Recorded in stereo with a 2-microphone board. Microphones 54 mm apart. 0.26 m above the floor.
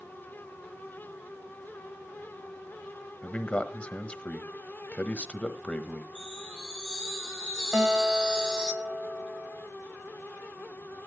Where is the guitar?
10° right (ahead or behind), 1.3 m.